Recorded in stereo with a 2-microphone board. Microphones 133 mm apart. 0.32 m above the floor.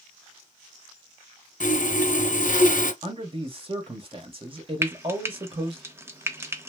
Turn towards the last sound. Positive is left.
turn(degrees=-20)  # may be behind; listen again after turning